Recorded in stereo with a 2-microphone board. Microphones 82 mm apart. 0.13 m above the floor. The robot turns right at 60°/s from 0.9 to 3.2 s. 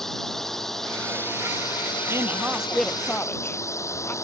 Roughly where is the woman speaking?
Right.